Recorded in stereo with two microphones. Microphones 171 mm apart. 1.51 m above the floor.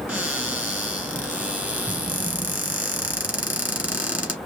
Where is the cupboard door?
10° right (ahead or behind), 2.5 m.